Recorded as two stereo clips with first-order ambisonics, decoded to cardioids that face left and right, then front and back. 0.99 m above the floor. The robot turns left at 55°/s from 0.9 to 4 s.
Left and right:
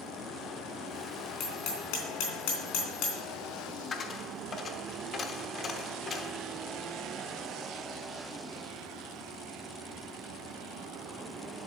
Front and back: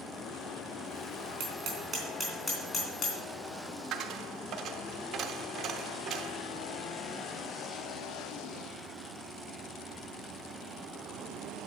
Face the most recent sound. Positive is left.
turn(degrees=145)